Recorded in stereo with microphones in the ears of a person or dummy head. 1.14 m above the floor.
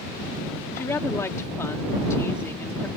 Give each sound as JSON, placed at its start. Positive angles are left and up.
{"t": 0.8, "sound": "a woman speaking", "side_deg": 15}